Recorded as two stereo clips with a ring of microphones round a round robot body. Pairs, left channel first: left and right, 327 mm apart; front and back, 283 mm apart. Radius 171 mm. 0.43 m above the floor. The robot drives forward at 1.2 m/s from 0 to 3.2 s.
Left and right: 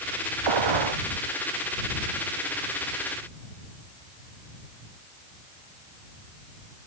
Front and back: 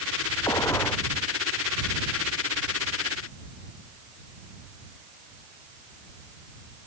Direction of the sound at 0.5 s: 80° right.